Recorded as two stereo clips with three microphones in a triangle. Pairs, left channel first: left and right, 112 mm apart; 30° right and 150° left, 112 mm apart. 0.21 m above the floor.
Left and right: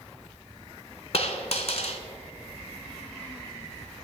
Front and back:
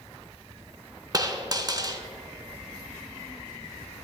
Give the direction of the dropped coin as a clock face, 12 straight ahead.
9 o'clock.